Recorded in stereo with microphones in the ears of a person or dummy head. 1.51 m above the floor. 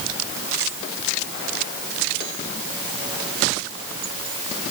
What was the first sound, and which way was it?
Only background noise.